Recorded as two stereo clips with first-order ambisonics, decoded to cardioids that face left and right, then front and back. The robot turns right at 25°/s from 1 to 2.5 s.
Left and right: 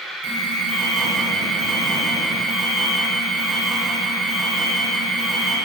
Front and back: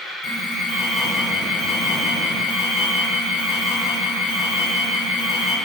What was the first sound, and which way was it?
An alarm, 45° right.